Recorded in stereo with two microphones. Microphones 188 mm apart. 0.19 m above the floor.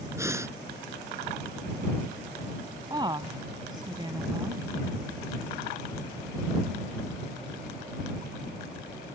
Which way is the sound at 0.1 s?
15° right (ahead or behind).